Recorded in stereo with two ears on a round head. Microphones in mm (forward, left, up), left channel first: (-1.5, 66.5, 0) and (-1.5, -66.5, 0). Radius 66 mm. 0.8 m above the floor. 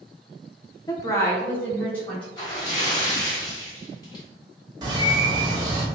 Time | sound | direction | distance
0.9 | a woman speaking | 25° left (ahead or behind) | 0.6 m
2.4 | a splash | 30° left (ahead or behind) | 1.5 m
4.8 | a bird | 30° right (ahead or behind) | 0.9 m